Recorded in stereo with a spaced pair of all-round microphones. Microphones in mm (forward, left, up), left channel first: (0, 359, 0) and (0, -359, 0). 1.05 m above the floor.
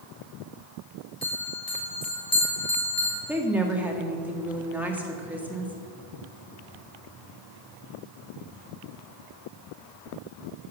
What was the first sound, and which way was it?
A bell, 30° left (ahead or behind).